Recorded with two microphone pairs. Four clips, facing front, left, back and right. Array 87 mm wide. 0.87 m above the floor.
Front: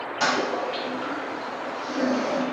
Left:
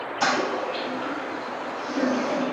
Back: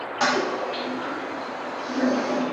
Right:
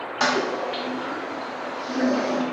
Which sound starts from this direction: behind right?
A toilet flushing, at 0.2 s.